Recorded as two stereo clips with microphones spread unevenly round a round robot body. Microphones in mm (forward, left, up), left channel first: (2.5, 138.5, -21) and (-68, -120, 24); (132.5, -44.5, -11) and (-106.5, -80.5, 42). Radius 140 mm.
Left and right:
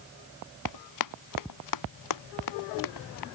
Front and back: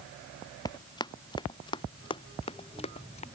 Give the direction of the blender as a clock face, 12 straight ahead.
I don't hear a blender.